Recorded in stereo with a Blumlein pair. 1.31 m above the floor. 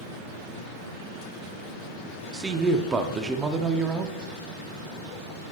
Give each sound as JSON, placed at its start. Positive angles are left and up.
{"t": 2.3, "sound": "a woman speaking", "azimuth_deg": -15, "distance_m": 0.6}